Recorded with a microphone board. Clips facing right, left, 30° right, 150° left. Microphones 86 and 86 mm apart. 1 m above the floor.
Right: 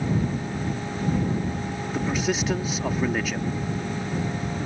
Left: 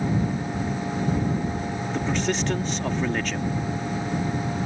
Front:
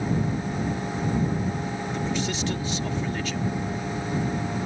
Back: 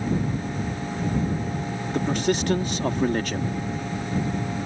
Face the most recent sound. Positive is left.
turn(degrees=-175)